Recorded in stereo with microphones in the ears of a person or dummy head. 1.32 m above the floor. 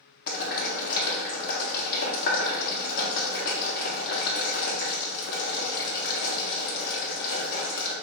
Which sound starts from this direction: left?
Boiling, at 0.3 s.